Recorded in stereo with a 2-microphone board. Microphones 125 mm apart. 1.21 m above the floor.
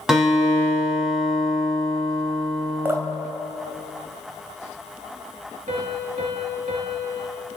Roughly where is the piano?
Right.